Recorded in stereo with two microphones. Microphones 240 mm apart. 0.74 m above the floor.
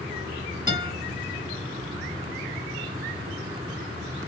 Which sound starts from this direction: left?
A guitar, at 0.7 s.